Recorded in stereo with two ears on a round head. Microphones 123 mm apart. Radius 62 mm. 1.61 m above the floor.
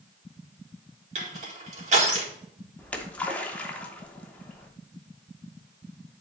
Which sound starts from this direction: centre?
A splash, at 2.8 s.